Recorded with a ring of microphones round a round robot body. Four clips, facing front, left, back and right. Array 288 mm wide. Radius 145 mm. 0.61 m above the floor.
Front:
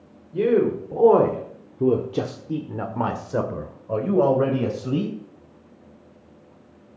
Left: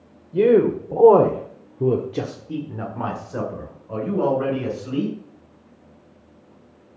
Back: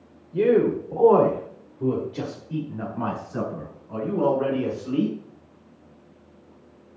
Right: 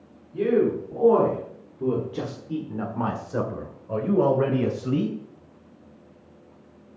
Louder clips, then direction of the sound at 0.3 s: Left 6 dB, even; 90° left.